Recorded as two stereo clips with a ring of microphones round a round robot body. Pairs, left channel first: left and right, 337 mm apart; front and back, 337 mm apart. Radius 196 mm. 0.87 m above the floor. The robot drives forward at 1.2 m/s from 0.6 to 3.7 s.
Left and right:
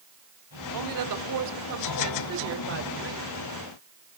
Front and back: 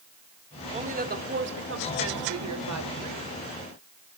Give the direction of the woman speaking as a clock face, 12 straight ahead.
4 o'clock.